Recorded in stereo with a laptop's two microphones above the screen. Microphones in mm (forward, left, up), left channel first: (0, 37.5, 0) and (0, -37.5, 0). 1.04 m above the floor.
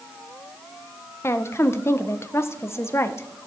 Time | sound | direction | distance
1.2 | a woman speaking | 35° left (ahead or behind) | 0.5 m